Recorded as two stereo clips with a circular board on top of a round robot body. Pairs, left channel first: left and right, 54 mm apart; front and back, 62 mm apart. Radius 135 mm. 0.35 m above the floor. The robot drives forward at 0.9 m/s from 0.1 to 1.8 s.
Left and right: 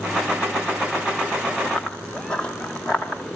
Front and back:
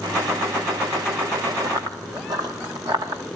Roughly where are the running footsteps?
Behind.